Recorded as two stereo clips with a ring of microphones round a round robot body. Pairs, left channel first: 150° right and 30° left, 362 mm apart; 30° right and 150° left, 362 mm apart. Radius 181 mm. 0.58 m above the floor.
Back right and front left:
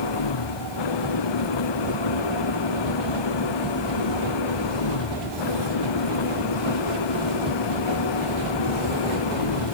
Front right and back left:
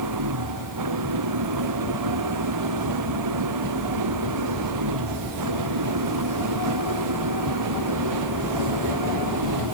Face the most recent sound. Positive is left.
turn(degrees=-170)